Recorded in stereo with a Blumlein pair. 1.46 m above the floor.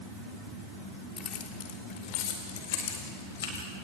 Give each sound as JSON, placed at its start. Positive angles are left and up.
{"t": 1.2, "sound": "keys jangling", "azimuth_deg": 25, "distance_m": 3.0}